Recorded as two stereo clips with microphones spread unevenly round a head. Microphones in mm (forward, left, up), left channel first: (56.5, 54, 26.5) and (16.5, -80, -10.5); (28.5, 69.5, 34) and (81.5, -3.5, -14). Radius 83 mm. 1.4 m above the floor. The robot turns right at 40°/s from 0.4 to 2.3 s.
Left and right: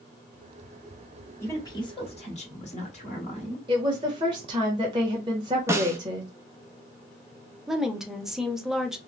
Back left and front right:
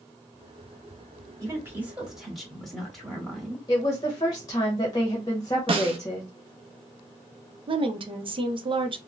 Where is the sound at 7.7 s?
15° right, 0.7 m.